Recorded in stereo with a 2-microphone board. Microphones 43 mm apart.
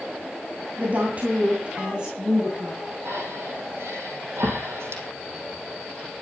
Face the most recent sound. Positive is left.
turn(degrees=-75)  # may be behind; listen again after turning